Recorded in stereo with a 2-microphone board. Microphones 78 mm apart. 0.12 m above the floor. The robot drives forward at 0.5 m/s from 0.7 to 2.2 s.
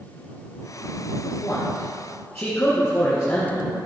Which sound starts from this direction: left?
A man speaking, at 1.4 s.